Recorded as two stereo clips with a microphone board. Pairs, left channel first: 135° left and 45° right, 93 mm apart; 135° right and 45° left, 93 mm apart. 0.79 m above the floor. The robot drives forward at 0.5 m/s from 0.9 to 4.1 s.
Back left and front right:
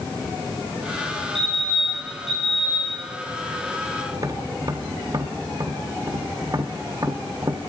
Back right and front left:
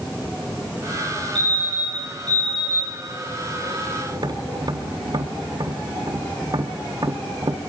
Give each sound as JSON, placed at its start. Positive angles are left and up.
{"t": 1.4, "sound": "a fire alarm", "azimuth_deg": -55, "distance_m": 7.5}
{"t": 4.1, "sound": "tapping", "azimuth_deg": 5, "distance_m": 1.5}